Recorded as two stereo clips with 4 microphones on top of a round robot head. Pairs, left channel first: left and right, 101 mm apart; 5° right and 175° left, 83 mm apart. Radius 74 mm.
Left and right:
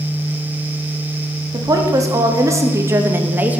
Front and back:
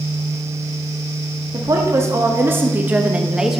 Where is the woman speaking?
140° right, 1.6 m; by 3.6 s 110° right, 0.8 m.